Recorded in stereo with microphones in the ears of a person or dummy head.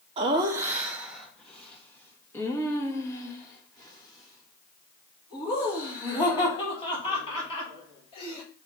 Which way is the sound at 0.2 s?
25° right (ahead or behind).